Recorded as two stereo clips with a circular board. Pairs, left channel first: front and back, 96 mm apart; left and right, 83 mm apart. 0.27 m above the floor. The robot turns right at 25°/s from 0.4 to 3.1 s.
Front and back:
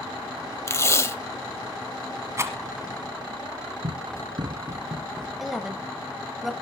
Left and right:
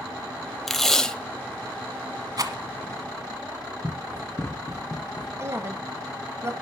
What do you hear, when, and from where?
0.7 s tape being pulled: 5° left, 0.8 m; by 1.1 s 20° left, 0.8 m
2.4 s a rattle: 125° right, 1.2 m; by 2.6 s 120° right, 1.2 m
3.8 s running footsteps: 170° left, 1.0 m; by 5.3 s 115° left, 1.2 m
5.4 s a woman speaking: 95° right, 1.2 m